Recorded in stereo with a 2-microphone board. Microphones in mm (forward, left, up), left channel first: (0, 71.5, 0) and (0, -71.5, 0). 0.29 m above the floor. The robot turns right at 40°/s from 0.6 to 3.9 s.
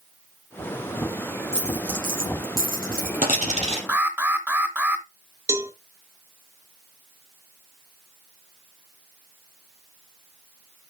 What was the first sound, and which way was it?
A dropped coin, 45° right (ahead or behind).